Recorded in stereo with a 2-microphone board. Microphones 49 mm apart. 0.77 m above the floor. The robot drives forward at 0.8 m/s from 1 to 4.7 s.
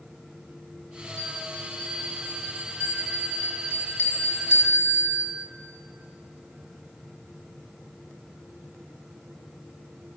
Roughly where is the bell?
Left.